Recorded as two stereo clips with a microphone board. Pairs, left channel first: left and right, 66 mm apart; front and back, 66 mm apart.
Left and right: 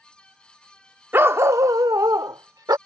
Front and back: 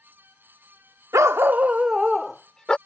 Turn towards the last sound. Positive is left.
turn(degrees=-80)